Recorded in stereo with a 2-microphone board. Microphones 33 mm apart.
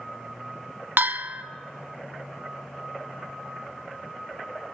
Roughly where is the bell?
Right.